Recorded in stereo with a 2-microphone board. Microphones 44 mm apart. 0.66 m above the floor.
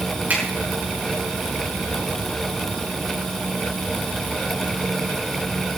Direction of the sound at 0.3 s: 45° right (ahead or behind).